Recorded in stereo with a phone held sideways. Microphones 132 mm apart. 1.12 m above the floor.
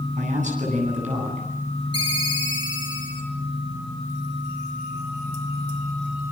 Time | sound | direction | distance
0.1 | a man speaking | 65° right (ahead or behind) | 10 m
1.9 | a ringtone | 35° right (ahead or behind) | 9 m